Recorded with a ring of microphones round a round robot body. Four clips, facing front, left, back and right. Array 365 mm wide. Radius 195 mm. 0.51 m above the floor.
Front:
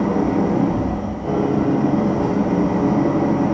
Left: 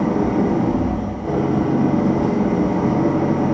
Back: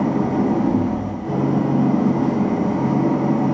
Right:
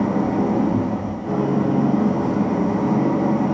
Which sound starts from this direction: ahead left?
An engine running, at 0.0 s.